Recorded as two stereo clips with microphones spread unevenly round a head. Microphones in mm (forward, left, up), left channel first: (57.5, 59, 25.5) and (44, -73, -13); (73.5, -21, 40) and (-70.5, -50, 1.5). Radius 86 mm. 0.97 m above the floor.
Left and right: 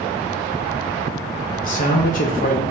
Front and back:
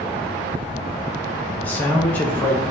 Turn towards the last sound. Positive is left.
turn(degrees=105)